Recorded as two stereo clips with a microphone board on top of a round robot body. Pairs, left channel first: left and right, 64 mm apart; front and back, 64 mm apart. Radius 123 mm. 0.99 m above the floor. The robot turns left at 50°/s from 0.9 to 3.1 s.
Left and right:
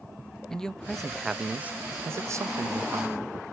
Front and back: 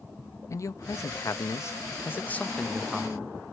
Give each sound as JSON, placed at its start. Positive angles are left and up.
{"t": 0.5, "sound": "a man speaking", "azimuth_deg": 10, "distance_m": 0.5}